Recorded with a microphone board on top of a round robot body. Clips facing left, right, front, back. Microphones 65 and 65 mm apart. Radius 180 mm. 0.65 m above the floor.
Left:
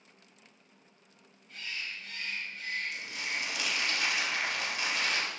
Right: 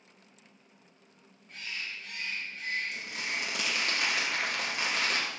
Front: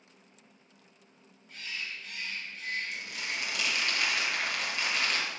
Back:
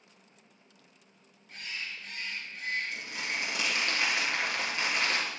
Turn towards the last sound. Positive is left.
turn(degrees=-120)